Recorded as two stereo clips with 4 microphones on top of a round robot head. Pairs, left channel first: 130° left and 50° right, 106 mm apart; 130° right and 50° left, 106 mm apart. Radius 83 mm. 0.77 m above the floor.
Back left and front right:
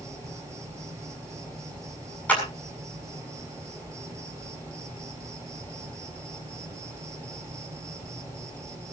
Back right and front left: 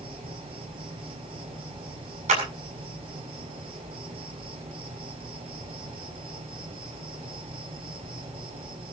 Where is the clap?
55° left, 7 m.